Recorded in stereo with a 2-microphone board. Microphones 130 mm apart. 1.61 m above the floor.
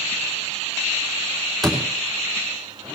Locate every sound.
1.6 s a door slam: centre (ahead or behind), 3 m